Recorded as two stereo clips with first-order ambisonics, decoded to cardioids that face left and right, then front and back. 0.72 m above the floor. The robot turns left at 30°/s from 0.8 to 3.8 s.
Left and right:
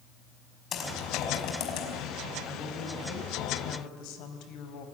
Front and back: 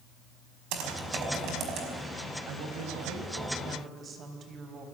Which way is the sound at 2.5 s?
155° left.